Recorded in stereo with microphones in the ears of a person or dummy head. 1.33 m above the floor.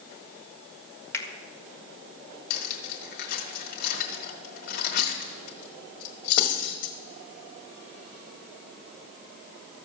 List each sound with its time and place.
1.1 s a finger snap: 15° left (ahead or behind), 1.5 m
2.5 s cutlery clinking: 55° left (ahead or behind), 1.4 m